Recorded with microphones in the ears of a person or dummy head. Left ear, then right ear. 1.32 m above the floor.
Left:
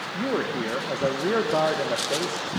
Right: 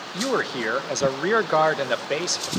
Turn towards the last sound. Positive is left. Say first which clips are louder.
# right 3 dB
turn(degrees=-70)  # may be behind; listen again after turning